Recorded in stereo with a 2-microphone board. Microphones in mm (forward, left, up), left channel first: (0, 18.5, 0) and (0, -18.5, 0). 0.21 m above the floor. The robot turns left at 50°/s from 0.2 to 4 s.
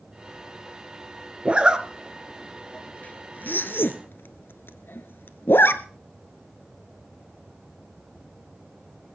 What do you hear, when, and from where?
1.4 s a zipper: 35° right (ahead or behind), 1.2 m; by 5.8 s 75° left (ahead or behind), 1.2 m